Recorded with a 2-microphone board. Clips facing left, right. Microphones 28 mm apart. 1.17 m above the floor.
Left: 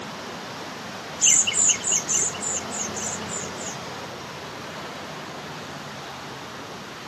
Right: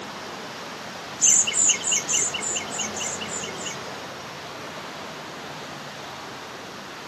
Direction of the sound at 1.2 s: 30° left (ahead or behind).